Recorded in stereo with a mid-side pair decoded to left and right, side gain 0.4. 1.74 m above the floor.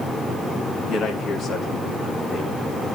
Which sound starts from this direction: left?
A man speaking, at 0.9 s.